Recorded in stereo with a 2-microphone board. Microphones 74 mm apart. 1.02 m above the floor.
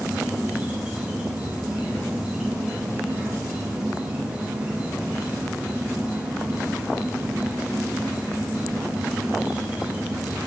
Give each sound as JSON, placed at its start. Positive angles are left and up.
{"t": 0.0, "sound": "an insect", "side_deg": -15, "distance_m": 0.7}